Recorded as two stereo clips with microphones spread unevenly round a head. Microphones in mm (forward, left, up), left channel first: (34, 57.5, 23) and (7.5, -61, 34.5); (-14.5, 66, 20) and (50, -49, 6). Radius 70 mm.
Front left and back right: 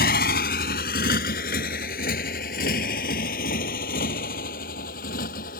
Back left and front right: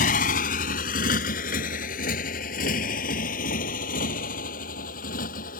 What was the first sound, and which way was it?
A motorcycle, 100° left.